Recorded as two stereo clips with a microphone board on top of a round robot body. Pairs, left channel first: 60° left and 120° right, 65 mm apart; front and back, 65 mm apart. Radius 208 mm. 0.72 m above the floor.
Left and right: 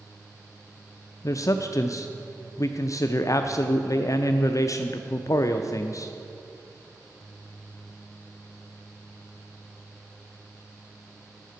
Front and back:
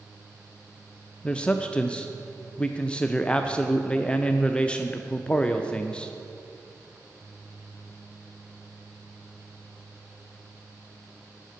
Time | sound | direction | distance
1.2 | a man speaking | 70° left | 0.6 m